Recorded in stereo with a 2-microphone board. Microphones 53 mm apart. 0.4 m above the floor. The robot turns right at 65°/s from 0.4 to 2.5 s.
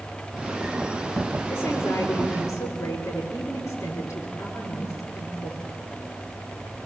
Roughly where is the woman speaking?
Ahead left.